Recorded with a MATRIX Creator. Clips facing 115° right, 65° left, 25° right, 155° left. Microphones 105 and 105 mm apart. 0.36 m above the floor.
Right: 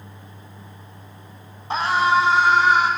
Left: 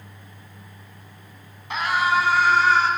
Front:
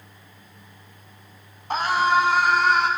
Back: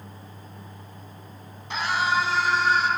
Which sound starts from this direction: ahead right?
A scream, at 1.7 s.